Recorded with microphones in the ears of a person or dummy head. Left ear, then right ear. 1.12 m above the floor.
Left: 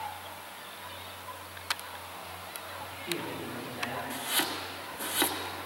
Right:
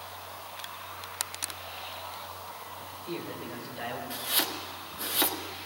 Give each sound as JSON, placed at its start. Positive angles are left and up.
{"t": 2.8, "sound": "a man speaking", "side_deg": -20, "distance_m": 3.5}
{"t": 4.1, "sound": "chopping", "side_deg": -10, "distance_m": 1.1}